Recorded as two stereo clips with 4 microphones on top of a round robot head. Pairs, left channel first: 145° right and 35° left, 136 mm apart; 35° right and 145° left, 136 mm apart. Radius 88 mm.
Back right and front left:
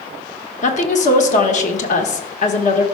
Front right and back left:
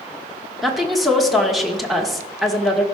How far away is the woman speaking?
About 1.4 m.